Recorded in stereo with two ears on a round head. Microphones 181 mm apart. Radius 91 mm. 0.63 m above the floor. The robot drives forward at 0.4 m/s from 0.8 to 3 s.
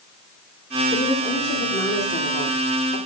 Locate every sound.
0.9 s a woman speaking: 30° left (ahead or behind), 1.8 m; by 3.0 s 40° left (ahead or behind), 1.3 m